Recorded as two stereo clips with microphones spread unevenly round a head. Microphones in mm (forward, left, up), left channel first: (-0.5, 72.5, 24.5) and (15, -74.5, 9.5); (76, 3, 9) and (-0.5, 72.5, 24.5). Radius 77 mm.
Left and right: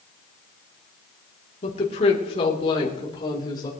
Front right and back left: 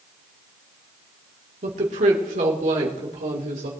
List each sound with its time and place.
1.6 s a woman speaking: 145° left, 2.5 m; by 3.7 s 160° left, 4 m